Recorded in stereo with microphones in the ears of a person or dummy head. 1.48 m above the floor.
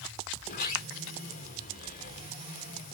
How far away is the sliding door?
About 2 m.